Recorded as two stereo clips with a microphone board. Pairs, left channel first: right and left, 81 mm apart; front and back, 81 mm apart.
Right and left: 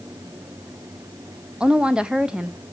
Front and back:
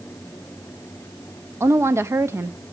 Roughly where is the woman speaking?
Behind.